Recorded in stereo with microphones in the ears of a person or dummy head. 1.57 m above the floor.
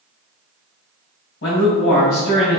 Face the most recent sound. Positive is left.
turn(degrees=65)  # may be behind; listen again after turning